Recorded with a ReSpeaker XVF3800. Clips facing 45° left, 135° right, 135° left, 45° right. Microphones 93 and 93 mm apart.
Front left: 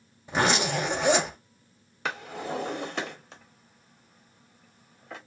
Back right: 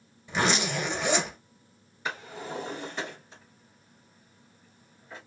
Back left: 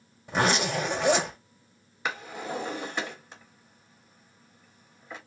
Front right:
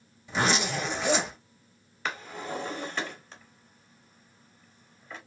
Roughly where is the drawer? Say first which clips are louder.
Front left 3 dB, back left 1 dB; ahead left.